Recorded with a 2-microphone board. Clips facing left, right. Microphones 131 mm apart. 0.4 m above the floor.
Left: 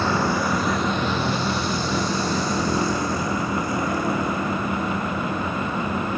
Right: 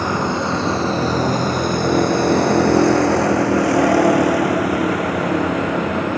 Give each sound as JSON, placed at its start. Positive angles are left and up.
{"t": 0.0, "sound": "a vehicle", "side_deg": -15}